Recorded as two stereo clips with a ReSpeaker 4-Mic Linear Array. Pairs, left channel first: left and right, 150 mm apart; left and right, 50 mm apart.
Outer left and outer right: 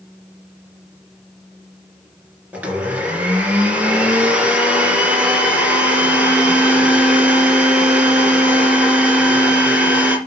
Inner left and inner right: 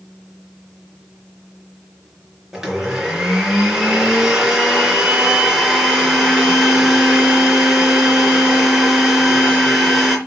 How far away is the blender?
About 3 m.